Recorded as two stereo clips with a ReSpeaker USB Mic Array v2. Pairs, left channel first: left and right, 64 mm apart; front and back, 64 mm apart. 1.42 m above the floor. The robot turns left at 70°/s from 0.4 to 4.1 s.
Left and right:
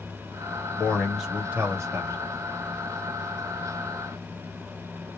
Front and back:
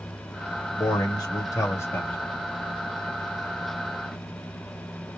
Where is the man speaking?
30° left, 1.8 m; by 2.2 s 70° right, 1.8 m.